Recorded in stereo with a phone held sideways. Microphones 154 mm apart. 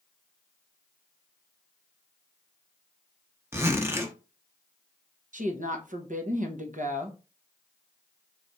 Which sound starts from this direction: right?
A woman speaking, at 5.3 s.